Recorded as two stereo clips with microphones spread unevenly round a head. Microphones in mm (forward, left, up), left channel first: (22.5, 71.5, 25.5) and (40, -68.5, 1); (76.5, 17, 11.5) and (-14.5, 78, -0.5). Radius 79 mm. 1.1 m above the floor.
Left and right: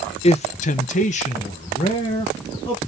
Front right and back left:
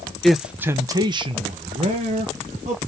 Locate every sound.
0.2 s a man speaking: 60° left, 0.6 m; by 2.8 s 165° left, 1.4 m